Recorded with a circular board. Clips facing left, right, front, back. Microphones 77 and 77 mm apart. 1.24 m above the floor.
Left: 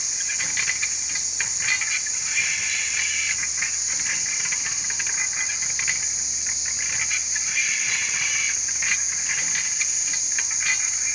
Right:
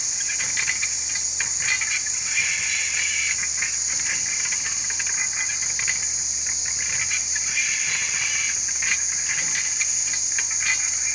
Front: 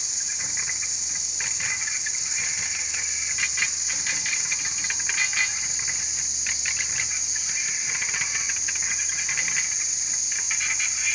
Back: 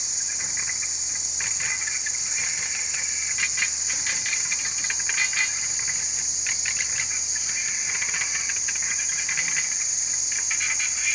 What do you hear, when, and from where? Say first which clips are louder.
0.0 s an insect: even, even; 120° left, 5.5 m